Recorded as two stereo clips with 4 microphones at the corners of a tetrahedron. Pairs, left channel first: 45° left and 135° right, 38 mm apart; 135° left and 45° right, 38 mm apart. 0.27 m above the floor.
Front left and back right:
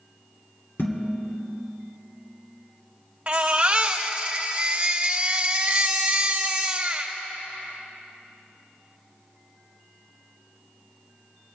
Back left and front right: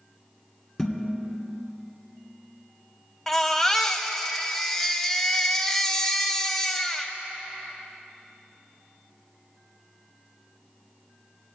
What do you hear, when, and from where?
0.8 s dishes clattering: 55° left, 1.9 m
3.3 s a baby crying: 155° right, 0.8 m